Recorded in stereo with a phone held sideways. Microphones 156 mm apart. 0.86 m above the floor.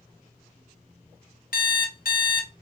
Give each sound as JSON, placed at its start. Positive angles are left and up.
{"t": 1.5, "sound": "an alarm clock", "side_deg": 65, "distance_m": 0.8}